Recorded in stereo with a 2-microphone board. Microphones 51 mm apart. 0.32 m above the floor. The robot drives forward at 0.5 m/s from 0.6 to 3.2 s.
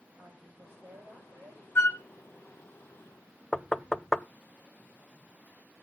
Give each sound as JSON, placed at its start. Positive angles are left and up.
{"t": 0.2, "sound": "a woman speaking", "side_deg": -60, "distance_m": 5.5}
{"t": 1.8, "sound": "a flute", "side_deg": 50, "distance_m": 0.9}
{"t": 3.5, "sound": "knocking", "side_deg": 10, "distance_m": 0.5}